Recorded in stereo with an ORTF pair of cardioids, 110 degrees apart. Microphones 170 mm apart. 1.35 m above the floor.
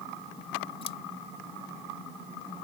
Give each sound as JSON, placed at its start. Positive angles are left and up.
{"t": 0.8, "sound": "scissors", "azimuth_deg": 30}